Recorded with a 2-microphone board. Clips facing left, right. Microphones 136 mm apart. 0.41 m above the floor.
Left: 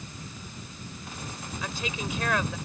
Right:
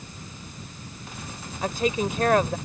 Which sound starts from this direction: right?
A woman speaking, at 1.6 s.